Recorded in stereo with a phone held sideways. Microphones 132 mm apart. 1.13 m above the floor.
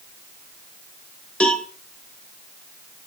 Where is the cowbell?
10° left (ahead or behind), 1.9 m.